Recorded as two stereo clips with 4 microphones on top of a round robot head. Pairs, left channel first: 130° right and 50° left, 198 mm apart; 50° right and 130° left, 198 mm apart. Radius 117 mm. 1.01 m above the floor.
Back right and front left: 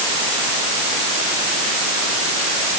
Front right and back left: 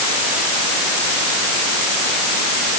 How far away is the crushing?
No crushing in this recording.